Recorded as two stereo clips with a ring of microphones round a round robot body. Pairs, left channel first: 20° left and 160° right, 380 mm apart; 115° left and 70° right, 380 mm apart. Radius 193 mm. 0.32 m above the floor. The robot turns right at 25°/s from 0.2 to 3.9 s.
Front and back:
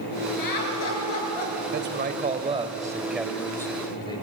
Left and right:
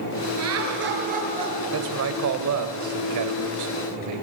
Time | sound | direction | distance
0.4 | laughter | 20° right | 6 m
1.7 | a man speaking | 105° right | 1.7 m